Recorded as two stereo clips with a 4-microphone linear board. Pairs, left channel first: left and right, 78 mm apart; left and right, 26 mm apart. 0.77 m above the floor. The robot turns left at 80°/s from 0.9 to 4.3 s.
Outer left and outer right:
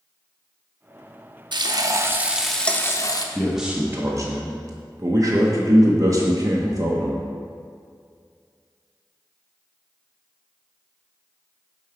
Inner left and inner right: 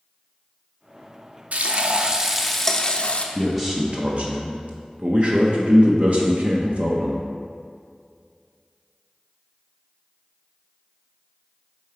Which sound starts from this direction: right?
Frying, at 1.5 s.